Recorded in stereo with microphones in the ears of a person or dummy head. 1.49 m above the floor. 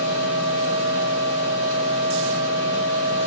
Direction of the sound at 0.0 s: 75° right (ahead or behind).